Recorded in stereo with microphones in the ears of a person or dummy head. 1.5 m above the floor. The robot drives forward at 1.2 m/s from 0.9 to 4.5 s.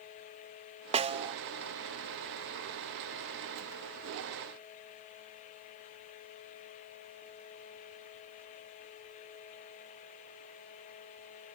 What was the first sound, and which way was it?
A snare drum, 30° right (ahead or behind).